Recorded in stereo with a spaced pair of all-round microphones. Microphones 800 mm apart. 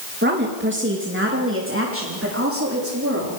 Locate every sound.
0.2 s a woman speaking: 10° right (ahead or behind), 2 m; by 3.4 s 15° right (ahead or behind), 4.5 m